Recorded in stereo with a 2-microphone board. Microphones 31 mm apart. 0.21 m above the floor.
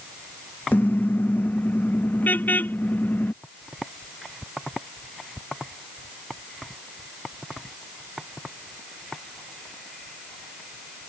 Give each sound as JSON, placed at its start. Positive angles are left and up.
{"t": 0.7, "sound": "a car horn", "side_deg": 80}